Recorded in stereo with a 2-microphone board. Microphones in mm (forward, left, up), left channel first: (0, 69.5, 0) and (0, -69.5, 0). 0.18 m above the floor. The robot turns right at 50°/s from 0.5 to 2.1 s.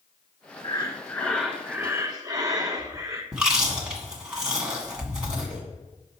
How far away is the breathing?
About 0.7 m.